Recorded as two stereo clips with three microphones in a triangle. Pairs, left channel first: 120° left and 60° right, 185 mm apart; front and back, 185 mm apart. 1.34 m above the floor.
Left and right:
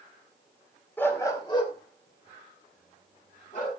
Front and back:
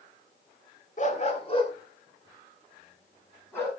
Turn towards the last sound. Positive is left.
turn(degrees=80)